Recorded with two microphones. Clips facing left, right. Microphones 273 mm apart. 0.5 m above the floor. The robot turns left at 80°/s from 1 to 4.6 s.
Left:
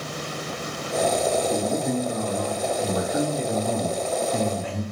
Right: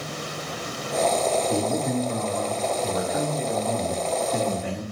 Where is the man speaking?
10° right (ahead or behind), 1.1 m; by 4.8 s 15° right (ahead or behind), 1.1 m.